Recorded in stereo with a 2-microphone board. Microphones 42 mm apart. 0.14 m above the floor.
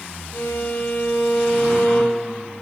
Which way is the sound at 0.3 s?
80° left.